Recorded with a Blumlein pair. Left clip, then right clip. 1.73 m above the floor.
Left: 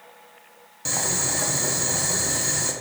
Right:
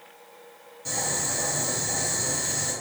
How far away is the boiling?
About 0.7 m.